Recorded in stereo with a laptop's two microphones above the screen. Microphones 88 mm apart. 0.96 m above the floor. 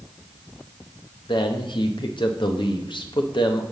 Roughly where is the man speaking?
Left.